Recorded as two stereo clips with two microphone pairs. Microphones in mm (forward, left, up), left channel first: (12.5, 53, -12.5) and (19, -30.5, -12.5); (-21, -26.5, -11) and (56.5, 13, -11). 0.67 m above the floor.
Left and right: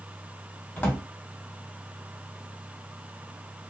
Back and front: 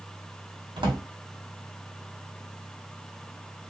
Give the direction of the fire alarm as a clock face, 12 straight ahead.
No fire alarm in this recording.